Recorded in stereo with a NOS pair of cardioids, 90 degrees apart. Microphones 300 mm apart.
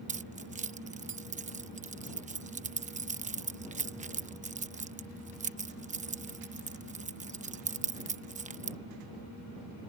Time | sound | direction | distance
0.1 | keys jangling | 25° right | ?